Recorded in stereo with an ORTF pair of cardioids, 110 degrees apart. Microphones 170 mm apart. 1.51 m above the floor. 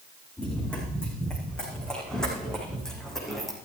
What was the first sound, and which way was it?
Running footsteps, 5° left.